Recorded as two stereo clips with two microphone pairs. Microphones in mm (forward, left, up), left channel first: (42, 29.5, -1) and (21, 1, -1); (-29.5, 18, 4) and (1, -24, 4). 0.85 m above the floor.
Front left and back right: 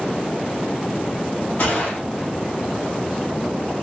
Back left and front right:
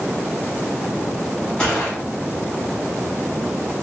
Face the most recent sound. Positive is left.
turn(degrees=55)